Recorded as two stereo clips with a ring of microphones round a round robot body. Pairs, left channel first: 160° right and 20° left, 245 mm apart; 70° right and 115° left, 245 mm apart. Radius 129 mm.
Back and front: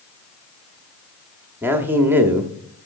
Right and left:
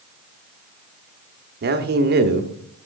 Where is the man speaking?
100° left, 0.9 m.